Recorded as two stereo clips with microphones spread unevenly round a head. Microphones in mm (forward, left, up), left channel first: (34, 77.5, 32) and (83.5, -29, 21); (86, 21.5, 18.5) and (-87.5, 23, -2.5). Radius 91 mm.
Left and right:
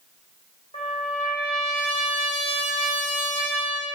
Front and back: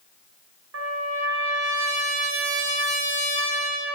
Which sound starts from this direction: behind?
A trumpet, at 0.7 s.